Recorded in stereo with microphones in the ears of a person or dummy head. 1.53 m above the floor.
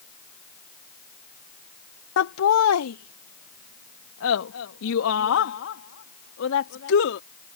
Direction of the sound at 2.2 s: 80° left.